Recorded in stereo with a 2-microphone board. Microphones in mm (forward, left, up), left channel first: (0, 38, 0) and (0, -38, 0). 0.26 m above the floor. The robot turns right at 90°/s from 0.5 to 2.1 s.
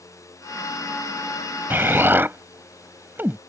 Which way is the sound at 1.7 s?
30° right (ahead or behind).